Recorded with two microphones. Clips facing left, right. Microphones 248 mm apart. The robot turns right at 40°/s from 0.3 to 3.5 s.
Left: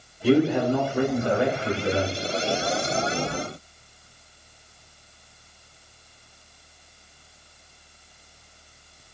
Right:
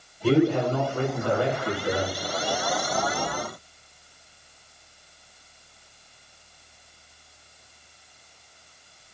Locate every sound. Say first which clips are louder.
0.2 s a man speaking: left 1 dB; 10° left (ahead or behind), 1.1 m; by 2.1 s 20° left (ahead or behind), 1.1 m